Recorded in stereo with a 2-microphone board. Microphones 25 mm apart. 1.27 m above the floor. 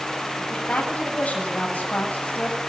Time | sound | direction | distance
0.4 | a woman speaking | 75° left (ahead or behind) | 8.5 m